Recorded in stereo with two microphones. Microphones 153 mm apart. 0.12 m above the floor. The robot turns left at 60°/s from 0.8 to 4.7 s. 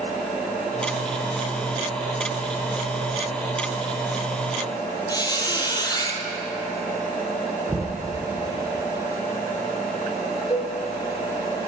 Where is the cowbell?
35° left (ahead or behind), 0.6 m.